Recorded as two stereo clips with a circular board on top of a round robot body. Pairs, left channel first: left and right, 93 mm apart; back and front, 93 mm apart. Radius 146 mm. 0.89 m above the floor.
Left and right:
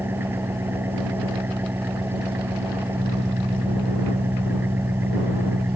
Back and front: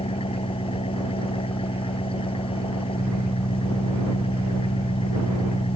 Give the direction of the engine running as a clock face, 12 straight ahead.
5 o'clock.